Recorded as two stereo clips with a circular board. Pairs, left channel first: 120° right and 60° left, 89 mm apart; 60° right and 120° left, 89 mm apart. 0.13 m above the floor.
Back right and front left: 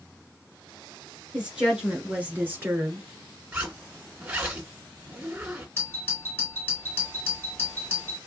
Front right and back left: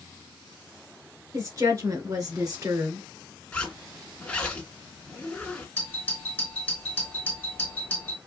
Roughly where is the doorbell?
Right.